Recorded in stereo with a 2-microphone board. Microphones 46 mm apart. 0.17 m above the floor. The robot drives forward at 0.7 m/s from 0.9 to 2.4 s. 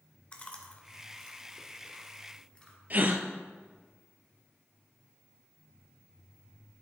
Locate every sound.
0.3 s chewing: 30° left (ahead or behind), 1.4 m; by 2.8 s 20° left (ahead or behind), 2 m
2.9 s a gasp: 35° right (ahead or behind), 0.9 m